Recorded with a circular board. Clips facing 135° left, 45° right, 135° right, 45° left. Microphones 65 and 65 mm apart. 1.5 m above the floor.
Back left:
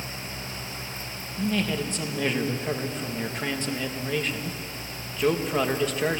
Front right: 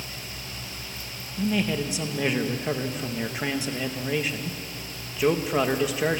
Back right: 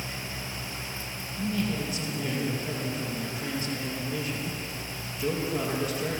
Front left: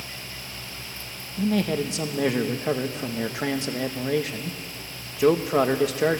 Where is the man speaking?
40° left, 1.6 m.